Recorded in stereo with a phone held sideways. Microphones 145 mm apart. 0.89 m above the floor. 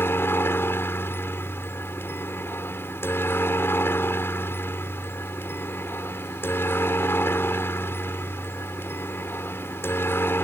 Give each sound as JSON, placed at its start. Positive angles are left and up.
{"t": 0.0, "sound": "a helicopter", "side_deg": 15}